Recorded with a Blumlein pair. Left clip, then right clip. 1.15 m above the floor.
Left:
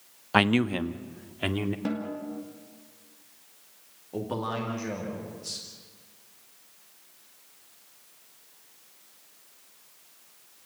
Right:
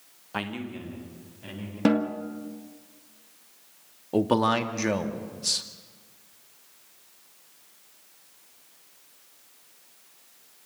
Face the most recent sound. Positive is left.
turn(degrees=-30)